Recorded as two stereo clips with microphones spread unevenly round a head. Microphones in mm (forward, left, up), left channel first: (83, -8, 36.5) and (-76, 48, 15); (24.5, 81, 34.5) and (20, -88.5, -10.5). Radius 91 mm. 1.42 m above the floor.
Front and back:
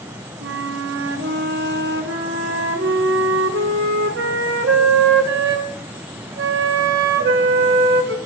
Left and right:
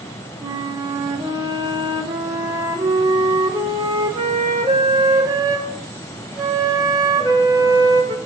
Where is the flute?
170° right, 1.1 m.